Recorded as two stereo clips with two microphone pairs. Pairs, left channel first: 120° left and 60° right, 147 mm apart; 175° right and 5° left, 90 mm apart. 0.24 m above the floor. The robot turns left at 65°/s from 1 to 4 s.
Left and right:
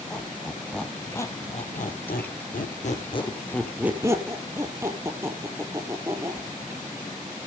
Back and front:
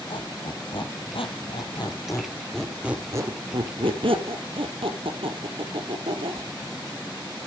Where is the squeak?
155° right, 1.8 m; by 6.5 s 10° left, 1.8 m.